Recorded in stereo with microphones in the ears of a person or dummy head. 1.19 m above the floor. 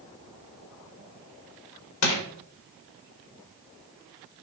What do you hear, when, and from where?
2.0 s crushing: 70° left (ahead or behind), 1.9 m